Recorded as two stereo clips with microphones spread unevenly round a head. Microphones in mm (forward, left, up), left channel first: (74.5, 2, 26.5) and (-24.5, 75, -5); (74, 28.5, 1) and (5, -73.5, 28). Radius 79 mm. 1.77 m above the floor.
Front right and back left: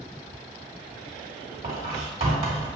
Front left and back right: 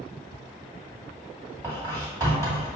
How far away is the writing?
About 1.9 m.